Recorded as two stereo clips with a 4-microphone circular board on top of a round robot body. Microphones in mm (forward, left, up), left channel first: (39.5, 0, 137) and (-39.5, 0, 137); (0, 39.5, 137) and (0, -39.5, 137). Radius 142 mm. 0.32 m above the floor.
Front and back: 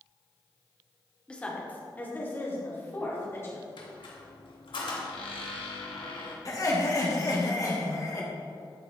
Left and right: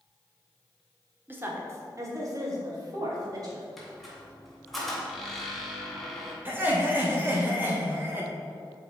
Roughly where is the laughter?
Ahead right.